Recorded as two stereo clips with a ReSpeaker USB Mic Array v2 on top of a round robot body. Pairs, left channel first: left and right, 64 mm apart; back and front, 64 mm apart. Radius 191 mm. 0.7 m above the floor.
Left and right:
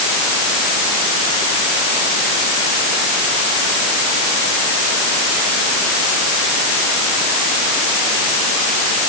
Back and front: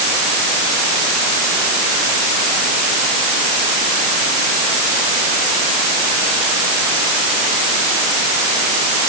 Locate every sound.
Only background noise.